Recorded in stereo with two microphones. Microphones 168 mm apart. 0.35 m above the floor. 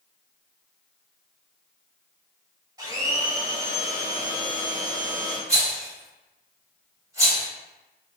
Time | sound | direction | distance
2.8 | a blender | 25° right (ahead or behind) | 0.9 m
5.5 | a rattle | 20° right (ahead or behind) | 1.1 m